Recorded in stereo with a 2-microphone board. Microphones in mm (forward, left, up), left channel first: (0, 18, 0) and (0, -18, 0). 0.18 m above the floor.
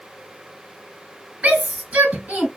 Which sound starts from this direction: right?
A shout, at 1.4 s.